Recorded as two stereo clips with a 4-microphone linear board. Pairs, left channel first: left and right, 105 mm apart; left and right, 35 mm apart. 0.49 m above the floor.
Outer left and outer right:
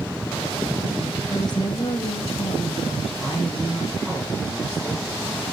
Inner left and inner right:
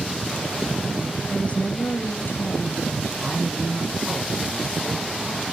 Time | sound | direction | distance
1.3 | a woman speaking | 35° left (ahead or behind) | 1.8 m
3.2 | a man speaking | 10° left (ahead or behind) | 6 m